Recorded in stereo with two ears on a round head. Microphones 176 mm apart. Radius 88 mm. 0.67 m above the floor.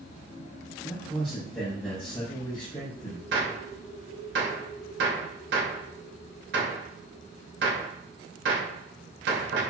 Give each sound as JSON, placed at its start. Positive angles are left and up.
{"t": 0.8, "sound": "a man speaking", "side_deg": 0, "distance_m": 4.0}
{"t": 3.3, "sound": "a gunshot", "side_deg": -60, "distance_m": 2.5}